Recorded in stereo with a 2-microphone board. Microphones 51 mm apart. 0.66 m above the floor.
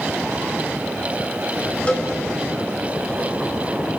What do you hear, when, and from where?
1.9 s a cowbell: 25° left (ahead or behind), 3.5 m